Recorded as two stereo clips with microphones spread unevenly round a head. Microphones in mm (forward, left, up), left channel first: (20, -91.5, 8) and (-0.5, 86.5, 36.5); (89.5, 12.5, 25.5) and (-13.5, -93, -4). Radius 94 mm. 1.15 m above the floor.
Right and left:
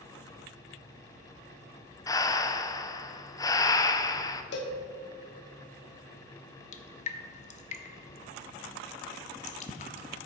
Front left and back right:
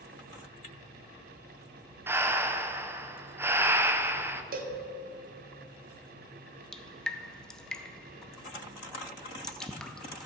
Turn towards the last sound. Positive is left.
turn(degrees=-30)